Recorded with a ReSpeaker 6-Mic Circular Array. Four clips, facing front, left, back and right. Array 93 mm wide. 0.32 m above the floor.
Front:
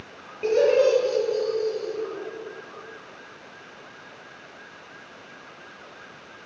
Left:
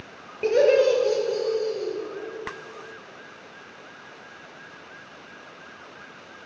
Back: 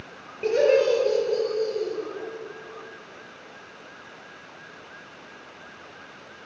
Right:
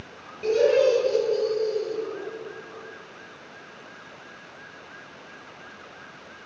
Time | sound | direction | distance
0.4 | laughter | 95° left | 1.3 m